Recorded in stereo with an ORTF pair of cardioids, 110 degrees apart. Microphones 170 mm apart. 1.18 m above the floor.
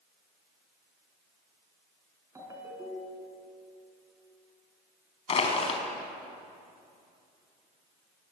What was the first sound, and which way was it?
A ringtone, 20° right.